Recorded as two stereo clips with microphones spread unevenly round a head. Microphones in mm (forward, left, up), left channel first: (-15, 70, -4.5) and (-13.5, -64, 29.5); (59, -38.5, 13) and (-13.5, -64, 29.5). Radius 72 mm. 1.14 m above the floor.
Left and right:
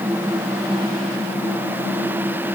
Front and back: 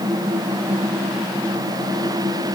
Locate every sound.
Only background noise.